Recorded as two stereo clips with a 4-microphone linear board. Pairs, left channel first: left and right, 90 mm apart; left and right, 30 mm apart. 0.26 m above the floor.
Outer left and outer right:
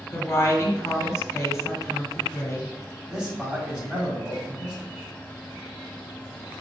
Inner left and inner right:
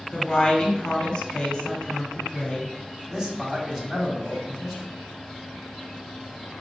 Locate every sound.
0.1 s a woman speaking: 35° left (ahead or behind), 1.2 m
3.1 s a man speaking: 10° right (ahead or behind), 1.8 m